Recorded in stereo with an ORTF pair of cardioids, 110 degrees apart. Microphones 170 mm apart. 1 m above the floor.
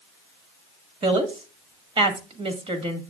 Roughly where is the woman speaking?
Ahead right.